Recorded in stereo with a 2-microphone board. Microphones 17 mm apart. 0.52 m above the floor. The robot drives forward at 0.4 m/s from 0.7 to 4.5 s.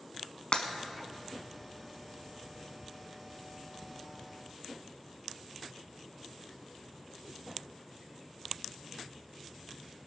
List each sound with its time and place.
0.5 s breaking glass: 75° left (ahead or behind), 1.1 m